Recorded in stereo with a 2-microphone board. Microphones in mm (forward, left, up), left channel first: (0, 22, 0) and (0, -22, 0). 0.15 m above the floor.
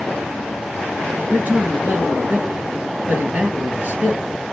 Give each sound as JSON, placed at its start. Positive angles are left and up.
{"t": 1.3, "sound": "a man speaking", "side_deg": -35, "distance_m": 2.0}